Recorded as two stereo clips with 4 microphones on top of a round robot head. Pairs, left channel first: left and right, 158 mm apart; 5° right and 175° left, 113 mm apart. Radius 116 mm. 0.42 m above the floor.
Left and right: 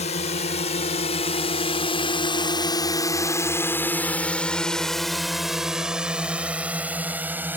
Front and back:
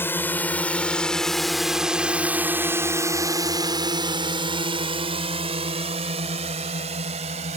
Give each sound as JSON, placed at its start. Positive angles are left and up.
{"t": 0.0, "sound": "a drone", "azimuth_deg": 60}